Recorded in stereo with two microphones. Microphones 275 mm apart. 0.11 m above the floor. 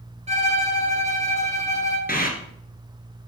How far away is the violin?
About 1.2 m.